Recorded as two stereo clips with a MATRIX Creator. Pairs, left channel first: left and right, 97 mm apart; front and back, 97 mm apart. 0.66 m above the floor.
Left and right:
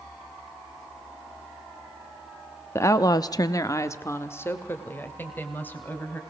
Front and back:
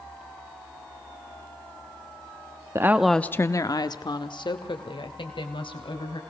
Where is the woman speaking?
140° left, 0.7 m; by 6.2 s 20° left, 3.5 m.